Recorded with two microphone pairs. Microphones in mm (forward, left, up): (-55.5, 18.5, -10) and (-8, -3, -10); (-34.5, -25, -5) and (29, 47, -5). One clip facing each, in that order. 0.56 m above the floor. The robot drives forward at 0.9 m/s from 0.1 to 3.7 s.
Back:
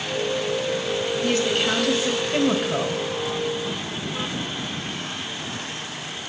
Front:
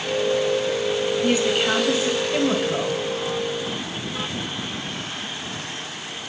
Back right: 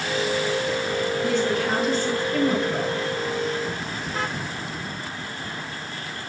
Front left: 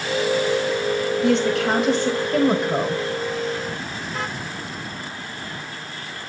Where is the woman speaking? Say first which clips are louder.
Front 1 dB, front left 5 dB; 50° left, 3 m; by 3.0 s 90° left, 2 m.